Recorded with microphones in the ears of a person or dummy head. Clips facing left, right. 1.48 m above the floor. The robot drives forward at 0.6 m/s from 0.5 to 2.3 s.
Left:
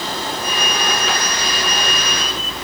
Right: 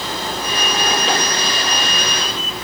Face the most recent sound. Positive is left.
No sound to turn to.